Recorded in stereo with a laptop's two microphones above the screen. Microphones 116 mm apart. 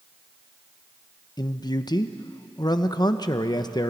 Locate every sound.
1.4 s a man speaking: 35° left (ahead or behind), 0.9 m